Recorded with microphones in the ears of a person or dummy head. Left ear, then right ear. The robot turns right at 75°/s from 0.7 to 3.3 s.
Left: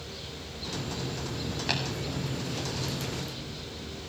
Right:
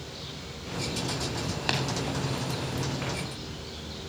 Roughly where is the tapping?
Right.